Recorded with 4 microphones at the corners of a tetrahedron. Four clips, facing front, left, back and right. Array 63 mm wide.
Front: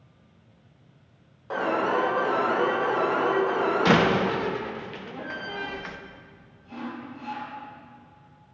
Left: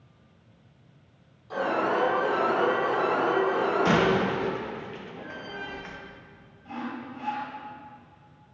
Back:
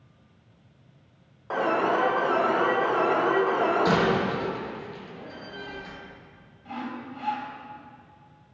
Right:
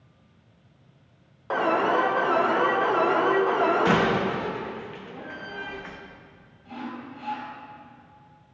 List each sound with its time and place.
1.5 s an alarm: 100° right, 2 m
3.9 s a door slam: 10° right, 0.7 m
6.7 s sawing: 155° left, 2 m